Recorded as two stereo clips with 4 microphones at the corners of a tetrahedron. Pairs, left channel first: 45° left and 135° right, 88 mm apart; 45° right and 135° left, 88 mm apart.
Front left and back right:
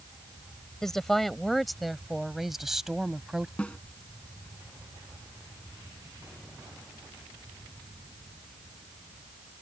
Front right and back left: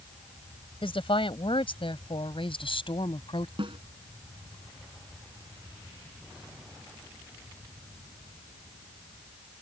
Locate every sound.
0.8 s a woman speaking: 40° right; by 3.5 s 50° right
3.6 s a snare drum: 120° left